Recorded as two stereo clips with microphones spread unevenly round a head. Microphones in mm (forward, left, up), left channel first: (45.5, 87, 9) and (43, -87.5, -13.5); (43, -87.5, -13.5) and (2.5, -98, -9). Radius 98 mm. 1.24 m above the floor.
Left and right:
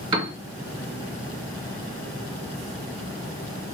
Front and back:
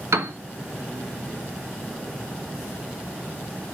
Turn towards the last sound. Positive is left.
turn(degrees=-160)